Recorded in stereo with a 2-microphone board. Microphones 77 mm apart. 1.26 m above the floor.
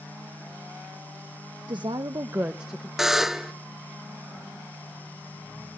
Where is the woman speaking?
80° right, 1.1 m; by 2.9 s 10° left (ahead or behind), 1.1 m.